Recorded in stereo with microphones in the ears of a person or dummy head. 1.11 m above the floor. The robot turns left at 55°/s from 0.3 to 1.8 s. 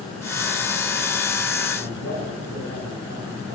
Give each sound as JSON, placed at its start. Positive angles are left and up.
{"t": 1.7, "sound": "a man speaking", "side_deg": -70, "distance_m": 8.5}